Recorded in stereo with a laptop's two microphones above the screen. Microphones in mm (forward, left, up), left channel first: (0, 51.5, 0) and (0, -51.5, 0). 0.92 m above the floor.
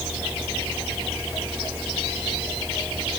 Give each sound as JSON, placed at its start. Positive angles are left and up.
{"t": 0.0, "sound": "a fan", "side_deg": -20}